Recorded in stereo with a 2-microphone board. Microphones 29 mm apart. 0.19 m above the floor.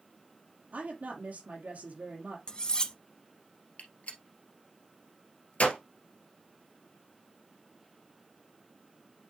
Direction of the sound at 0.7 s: 70° right (ahead or behind).